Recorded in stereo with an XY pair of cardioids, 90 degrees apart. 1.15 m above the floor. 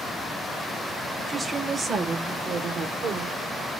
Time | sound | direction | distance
1.3 | a woman speaking | 30° right | 1.0 m